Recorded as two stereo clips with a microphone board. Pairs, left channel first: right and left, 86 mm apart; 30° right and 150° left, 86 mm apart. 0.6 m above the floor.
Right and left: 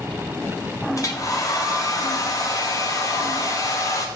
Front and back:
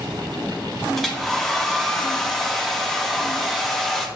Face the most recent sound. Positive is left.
turn(degrees=-115)